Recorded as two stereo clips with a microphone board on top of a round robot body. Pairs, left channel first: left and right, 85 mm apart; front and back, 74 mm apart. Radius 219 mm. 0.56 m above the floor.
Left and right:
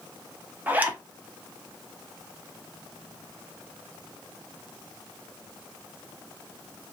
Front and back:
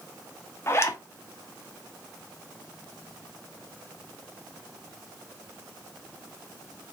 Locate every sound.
0.7 s a zipper: 30° right, 0.9 m